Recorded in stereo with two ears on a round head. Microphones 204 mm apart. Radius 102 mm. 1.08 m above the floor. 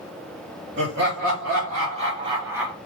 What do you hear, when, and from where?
0.8 s laughter: 50° right (ahead or behind), 1.9 m; by 2.8 s 5° right (ahead or behind), 1.0 m